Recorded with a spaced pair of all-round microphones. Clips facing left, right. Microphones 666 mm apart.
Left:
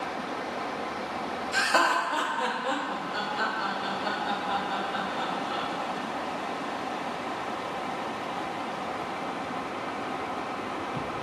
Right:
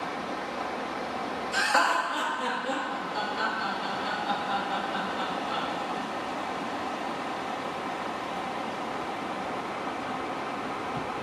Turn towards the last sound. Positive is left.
turn(degrees=55)  # may be behind; listen again after turning